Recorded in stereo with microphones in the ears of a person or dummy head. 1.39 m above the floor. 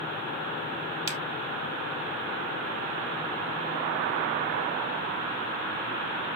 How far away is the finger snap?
About 2.0 m.